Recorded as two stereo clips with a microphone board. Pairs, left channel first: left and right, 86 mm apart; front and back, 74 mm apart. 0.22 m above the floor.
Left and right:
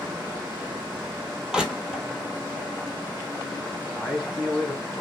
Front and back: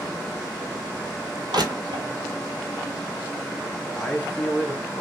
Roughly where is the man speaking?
Ahead.